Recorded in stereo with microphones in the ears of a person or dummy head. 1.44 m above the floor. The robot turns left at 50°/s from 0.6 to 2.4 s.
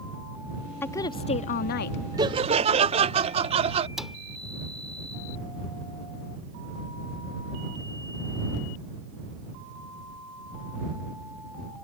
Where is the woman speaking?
165° left; by 2.0 s 110° left.